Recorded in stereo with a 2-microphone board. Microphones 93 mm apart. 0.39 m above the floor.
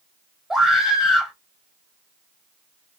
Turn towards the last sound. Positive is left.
turn(degrees=-5)  # may be behind; listen again after turning